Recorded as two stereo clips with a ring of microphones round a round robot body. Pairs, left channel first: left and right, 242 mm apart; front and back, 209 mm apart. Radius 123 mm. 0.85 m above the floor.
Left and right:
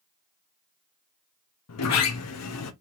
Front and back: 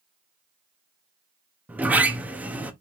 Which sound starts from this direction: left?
A sliding door, at 1.7 s.